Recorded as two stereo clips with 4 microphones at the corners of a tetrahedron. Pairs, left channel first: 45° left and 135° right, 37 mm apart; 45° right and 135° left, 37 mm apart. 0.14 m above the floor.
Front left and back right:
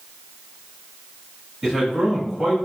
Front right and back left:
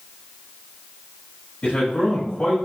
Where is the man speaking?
55° right, 1.2 m.